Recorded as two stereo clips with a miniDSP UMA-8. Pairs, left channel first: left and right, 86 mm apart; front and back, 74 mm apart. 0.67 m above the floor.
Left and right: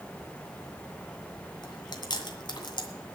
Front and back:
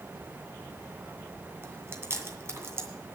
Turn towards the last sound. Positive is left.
turn(degrees=125)